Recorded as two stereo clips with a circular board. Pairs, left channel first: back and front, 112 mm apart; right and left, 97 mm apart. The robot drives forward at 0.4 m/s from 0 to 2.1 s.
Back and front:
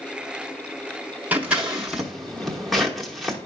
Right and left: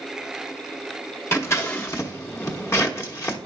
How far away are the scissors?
About 1.2 m.